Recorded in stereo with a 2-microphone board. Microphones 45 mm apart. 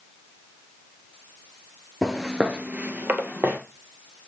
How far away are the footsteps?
About 1.0 m.